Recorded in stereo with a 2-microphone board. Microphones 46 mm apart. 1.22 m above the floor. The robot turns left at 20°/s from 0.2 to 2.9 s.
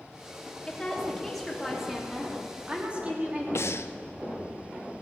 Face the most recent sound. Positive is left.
turn(degrees=75)  # may be behind; listen again after turning